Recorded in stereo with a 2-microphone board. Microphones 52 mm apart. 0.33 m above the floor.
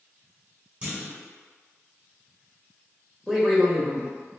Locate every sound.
0.8 s a clunk: 20° right (ahead or behind), 1.3 m
3.3 s a man speaking: centre (ahead or behind), 0.8 m